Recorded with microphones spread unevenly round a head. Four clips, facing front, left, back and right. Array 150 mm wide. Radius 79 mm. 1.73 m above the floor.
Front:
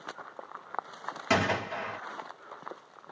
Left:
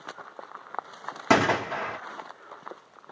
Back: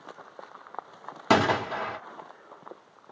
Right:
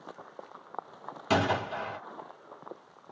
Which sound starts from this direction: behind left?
A gunshot, at 1.3 s.